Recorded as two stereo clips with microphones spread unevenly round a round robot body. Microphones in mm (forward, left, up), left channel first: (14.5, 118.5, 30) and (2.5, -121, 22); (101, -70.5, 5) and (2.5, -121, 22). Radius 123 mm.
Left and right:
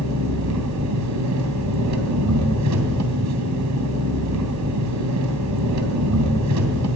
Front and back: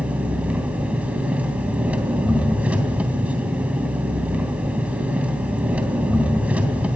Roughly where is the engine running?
Right.